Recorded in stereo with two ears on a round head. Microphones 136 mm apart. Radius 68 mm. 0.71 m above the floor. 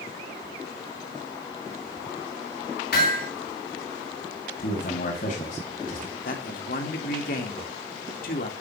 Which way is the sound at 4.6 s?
60° left (ahead or behind).